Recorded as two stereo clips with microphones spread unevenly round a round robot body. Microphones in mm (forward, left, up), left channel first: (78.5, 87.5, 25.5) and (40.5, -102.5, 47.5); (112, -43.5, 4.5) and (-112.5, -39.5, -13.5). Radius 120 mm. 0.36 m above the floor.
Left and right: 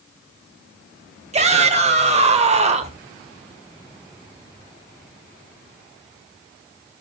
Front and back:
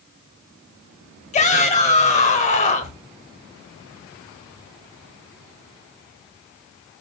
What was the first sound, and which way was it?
A shout, 55° right.